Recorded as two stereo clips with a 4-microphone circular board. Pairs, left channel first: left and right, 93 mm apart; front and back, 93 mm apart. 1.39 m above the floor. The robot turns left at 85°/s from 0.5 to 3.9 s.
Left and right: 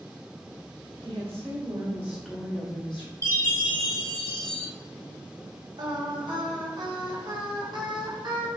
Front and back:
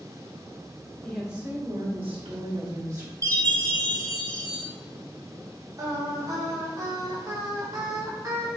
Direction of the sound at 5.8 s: 130° right.